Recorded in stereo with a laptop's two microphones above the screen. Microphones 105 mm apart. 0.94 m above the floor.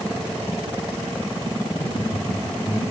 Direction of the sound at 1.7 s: 80° left.